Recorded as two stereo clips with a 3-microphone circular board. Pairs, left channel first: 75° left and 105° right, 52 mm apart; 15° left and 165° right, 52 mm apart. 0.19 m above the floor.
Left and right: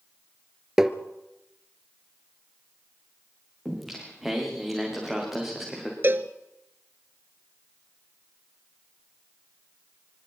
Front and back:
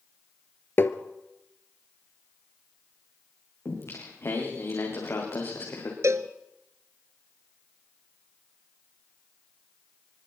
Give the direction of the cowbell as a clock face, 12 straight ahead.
5 o'clock.